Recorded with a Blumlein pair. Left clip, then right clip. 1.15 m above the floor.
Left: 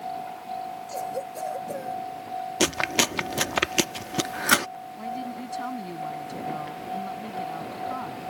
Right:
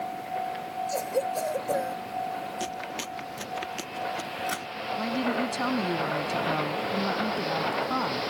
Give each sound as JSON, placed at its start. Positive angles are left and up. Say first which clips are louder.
{"t": 0.9, "sound": "a cough", "louder": "right 5 dB", "azimuth_deg": -15}
{"t": 2.6, "sound": "chewing", "louder": "left 10 dB", "azimuth_deg": 55}
{"t": 5.0, "sound": "a woman speaking", "louder": "right 6 dB", "azimuth_deg": -20}